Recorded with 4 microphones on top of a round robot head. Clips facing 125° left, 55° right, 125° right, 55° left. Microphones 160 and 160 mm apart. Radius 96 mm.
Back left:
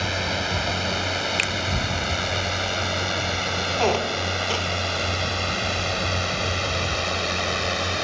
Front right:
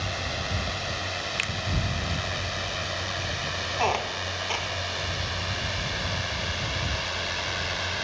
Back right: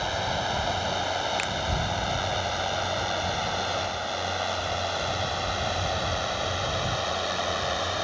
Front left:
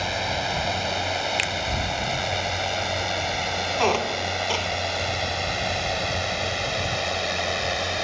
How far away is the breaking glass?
No breaking glass in this recording.